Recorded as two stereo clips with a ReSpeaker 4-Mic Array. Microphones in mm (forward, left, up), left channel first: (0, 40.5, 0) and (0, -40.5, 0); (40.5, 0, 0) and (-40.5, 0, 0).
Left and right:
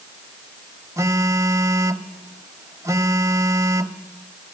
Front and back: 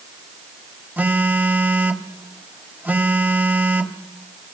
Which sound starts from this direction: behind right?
A phone buzzing, at 1.0 s.